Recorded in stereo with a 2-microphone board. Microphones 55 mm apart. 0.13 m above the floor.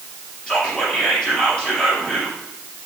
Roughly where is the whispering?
Centre.